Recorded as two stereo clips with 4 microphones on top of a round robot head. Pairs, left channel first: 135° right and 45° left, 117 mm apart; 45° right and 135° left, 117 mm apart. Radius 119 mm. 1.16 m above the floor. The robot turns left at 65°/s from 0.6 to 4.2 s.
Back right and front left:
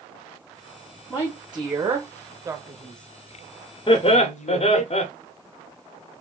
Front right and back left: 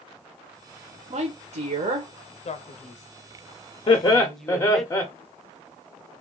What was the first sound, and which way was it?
A woman speaking, 160° left.